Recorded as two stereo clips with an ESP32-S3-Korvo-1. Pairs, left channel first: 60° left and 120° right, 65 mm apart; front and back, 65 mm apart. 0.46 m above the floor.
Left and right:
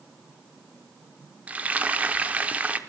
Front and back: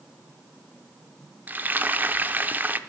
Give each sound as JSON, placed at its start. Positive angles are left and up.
{"t": 1.5, "sound": "frying", "azimuth_deg": -160, "distance_m": 0.6}